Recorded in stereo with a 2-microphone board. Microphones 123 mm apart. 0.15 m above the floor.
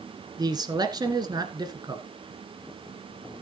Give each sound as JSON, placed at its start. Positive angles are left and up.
{"t": 0.4, "sound": "a man speaking", "side_deg": -35, "distance_m": 1.6}